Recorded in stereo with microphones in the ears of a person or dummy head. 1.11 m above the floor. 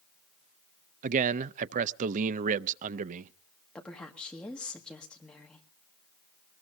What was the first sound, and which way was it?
A man speaking, 50° right (ahead or behind).